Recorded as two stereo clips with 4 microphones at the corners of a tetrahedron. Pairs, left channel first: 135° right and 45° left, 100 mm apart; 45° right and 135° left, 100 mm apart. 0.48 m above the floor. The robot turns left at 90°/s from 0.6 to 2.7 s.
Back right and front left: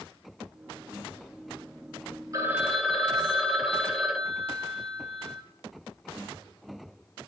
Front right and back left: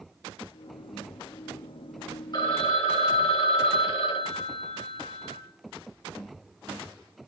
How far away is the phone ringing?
About 1.5 m.